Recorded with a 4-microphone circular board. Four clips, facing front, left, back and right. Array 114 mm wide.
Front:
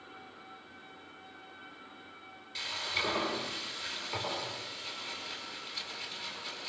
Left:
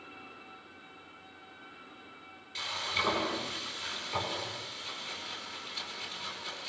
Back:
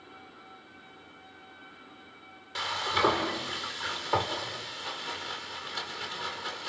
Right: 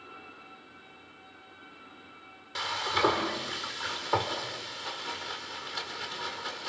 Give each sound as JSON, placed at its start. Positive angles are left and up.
{"t": 2.5, "sound": "frying", "azimuth_deg": -130, "distance_m": 5.0}